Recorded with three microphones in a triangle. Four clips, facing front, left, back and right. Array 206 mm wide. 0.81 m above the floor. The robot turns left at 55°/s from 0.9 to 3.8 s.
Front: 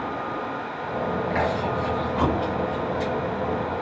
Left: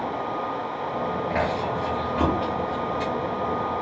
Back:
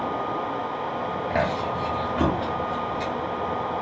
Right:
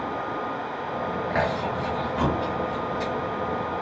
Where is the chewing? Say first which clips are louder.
Right 1 dB, back 2 dB; 170° right, 1.6 m; by 3.1 s 90° left, 1.6 m.